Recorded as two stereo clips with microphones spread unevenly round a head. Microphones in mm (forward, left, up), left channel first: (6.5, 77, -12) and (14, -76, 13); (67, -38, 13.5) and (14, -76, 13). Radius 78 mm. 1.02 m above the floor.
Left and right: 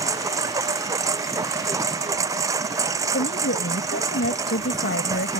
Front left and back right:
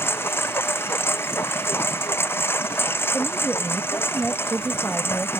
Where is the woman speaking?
120° left.